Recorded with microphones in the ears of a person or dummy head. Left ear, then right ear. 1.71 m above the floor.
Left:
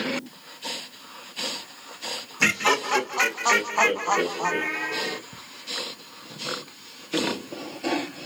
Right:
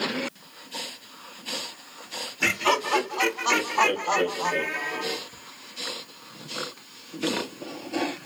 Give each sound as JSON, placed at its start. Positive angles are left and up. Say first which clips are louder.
{"t": 2.4, "sound": "laughter", "louder": "left 2 dB", "side_deg": 65, "distance_m": 1.5}
{"t": 5.3, "sound": "ticking", "louder": "left 2 dB", "side_deg": 40, "distance_m": 0.5}